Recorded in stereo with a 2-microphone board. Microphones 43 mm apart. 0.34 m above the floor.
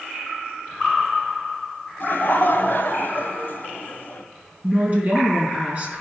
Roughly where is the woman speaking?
Right.